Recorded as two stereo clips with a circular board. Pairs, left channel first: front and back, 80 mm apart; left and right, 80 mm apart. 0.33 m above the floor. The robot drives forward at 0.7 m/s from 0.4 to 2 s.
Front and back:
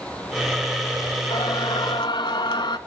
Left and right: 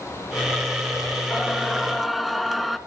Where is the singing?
Straight ahead, 1.3 m.